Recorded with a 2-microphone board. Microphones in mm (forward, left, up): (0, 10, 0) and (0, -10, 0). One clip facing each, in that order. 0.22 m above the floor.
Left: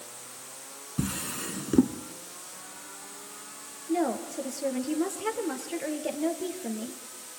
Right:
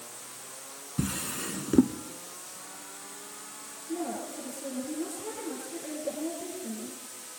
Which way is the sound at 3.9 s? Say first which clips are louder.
Left 6 dB; 75° left (ahead or behind).